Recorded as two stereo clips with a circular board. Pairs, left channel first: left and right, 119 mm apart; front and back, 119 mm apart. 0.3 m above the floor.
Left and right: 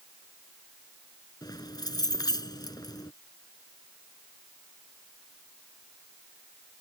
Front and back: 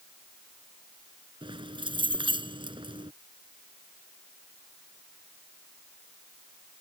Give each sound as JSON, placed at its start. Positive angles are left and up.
{"t": 1.4, "sound": "keys jangling", "azimuth_deg": 140}